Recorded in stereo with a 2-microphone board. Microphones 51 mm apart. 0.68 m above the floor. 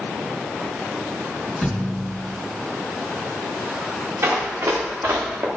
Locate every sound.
1.6 s a thud: 5° right (ahead or behind), 3.5 m
4.2 s running footsteps: 75° right (ahead or behind), 4 m; by 5.5 s 80° right, 3.5 m